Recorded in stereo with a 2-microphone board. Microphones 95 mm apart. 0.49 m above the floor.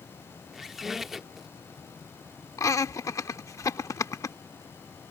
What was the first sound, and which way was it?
A squeak, 5° right (ahead or behind).